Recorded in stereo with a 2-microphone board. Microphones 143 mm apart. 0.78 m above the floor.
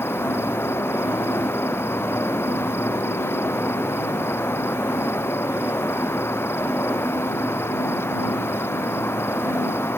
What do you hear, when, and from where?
0.0 s an insect: 15° left (ahead or behind)